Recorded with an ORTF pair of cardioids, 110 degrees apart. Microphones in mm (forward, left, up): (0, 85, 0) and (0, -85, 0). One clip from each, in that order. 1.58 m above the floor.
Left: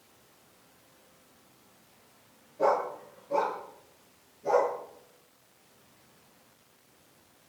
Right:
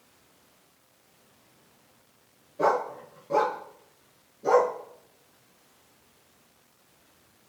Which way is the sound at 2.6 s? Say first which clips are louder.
Right 2 dB; 45° right.